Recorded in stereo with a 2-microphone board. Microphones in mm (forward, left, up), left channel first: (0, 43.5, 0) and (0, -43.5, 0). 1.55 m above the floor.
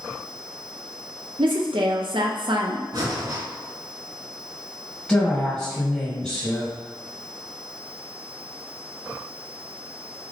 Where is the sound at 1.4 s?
70° right (ahead or behind), 0.7 m.